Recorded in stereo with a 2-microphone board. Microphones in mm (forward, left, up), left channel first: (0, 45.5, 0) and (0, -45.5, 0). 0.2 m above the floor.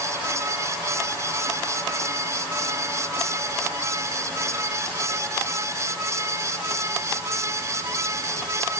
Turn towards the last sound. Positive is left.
No sound to turn to.